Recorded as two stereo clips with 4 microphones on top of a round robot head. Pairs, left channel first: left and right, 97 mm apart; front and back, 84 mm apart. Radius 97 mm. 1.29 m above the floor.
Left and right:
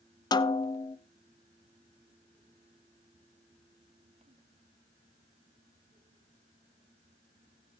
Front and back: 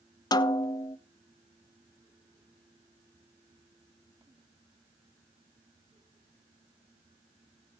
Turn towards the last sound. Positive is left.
turn(degrees=40)